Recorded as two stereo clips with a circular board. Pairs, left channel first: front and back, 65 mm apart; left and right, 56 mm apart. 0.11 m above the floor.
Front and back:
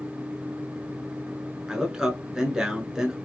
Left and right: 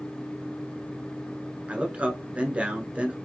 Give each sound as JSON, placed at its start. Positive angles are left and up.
{"t": 1.7, "sound": "a man speaking", "azimuth_deg": -110, "distance_m": 1.4}